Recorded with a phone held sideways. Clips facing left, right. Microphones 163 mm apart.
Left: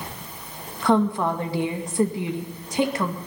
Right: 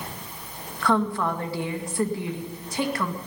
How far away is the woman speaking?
About 2 m.